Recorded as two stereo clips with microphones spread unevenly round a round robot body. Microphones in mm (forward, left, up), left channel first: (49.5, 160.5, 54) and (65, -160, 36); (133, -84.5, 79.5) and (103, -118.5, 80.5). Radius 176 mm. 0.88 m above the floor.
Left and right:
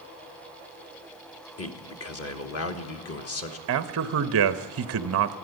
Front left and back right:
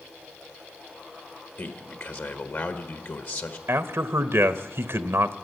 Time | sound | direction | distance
1.6 | a man speaking | 60° left | 1.4 m
3.7 | a man speaking | 130° right | 0.7 m